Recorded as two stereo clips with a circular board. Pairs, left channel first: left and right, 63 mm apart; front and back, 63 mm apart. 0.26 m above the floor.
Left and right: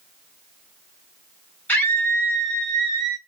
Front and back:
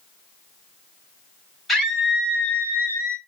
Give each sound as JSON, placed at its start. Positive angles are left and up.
{"t": 1.7, "sound": "a scream", "azimuth_deg": 80, "distance_m": 1.4}